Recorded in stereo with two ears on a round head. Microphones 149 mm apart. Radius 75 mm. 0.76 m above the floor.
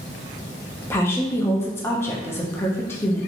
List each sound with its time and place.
0.8 s a woman speaking: 15° left (ahead or behind), 0.5 m